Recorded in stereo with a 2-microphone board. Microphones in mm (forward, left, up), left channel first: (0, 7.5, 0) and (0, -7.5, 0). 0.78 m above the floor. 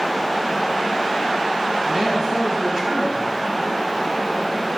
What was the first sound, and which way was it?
A woman speaking, 50° right (ahead or behind).